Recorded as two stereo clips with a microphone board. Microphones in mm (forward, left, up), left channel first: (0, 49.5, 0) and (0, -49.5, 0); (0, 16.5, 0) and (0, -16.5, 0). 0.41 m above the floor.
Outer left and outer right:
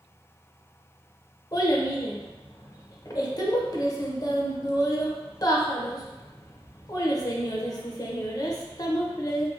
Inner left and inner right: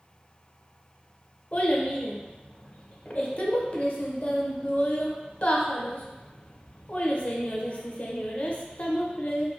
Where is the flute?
I don't hear a flute.